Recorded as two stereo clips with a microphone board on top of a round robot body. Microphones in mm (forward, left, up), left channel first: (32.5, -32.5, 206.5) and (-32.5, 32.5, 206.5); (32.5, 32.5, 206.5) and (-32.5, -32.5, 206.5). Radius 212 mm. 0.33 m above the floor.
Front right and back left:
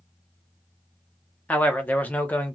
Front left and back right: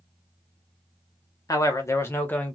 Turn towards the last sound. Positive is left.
turn(degrees=-10)